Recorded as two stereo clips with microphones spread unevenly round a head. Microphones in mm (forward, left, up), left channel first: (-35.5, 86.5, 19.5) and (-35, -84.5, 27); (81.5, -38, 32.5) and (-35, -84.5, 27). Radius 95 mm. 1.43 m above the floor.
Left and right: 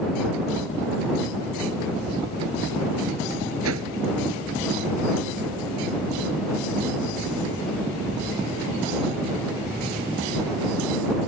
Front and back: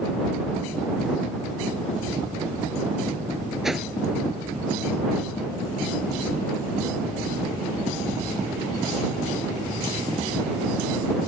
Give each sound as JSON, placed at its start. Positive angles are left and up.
{"t": 3.6, "sound": "a whoosh", "azimuth_deg": -70}